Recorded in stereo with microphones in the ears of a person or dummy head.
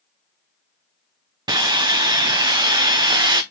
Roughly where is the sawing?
Right.